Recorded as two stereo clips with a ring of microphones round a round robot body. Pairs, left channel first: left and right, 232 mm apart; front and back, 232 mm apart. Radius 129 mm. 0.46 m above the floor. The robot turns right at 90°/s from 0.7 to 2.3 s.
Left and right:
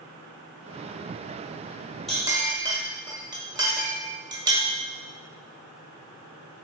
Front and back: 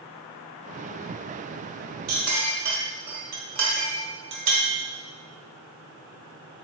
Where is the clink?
Straight behind, 1.4 m; by 4.7 s 160° right, 1.4 m.